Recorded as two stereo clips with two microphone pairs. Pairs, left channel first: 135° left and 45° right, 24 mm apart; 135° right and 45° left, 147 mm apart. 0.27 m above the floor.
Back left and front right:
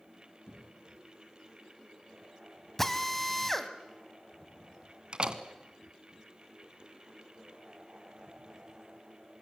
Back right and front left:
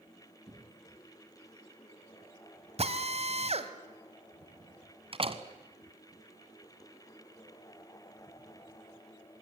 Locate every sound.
0.5 s a cough: 105° left, 6 m
2.8 s a drill: 60° left, 1.4 m
5.1 s a door slam: straight ahead, 1.4 m